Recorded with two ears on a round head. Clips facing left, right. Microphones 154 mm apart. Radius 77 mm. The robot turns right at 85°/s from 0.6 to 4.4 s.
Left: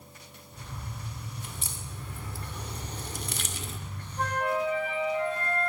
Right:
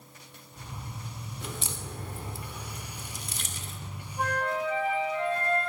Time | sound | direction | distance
1.4 | a crack | 55° right (ahead or behind) | 2 m
4.2 | a flute | 5° right (ahead or behind) | 9 m